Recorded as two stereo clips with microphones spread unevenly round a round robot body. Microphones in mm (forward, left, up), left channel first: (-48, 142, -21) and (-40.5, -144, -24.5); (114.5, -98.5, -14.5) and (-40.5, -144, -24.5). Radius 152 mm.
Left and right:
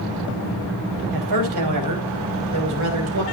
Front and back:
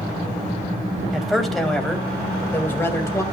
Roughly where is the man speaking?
Right.